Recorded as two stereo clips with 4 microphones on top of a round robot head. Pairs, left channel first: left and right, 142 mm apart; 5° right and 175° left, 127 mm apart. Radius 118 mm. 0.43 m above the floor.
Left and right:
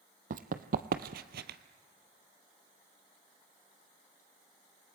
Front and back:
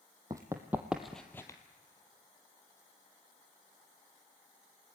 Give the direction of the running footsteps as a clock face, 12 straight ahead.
4 o'clock.